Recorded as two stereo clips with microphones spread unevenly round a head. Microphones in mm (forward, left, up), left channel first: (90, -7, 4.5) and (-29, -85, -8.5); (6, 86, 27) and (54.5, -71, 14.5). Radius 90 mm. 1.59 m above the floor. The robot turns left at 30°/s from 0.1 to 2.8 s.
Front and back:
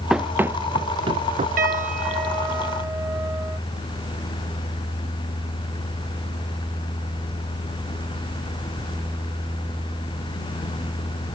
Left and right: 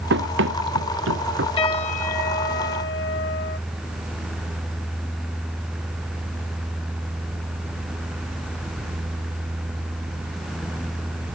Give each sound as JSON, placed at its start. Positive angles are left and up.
{"t": 0.1, "sound": "running footsteps", "azimuth_deg": -60}
{"t": 1.6, "sound": "a piano", "azimuth_deg": 170}